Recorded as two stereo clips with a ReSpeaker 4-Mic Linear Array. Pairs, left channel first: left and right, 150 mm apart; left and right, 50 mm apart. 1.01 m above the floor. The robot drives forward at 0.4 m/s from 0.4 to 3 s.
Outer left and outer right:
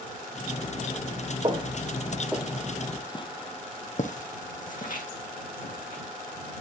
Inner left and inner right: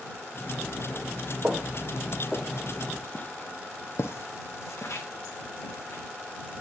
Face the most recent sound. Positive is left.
turn(degrees=70)  # may be behind; listen again after turning